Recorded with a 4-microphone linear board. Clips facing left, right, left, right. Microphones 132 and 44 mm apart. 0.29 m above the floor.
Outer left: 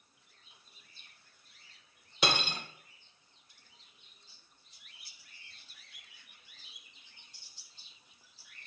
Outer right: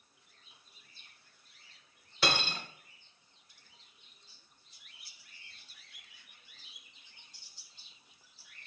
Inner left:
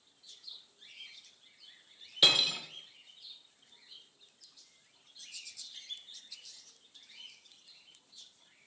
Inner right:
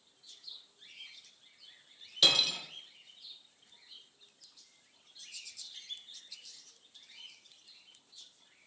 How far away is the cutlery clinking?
About 0.6 m.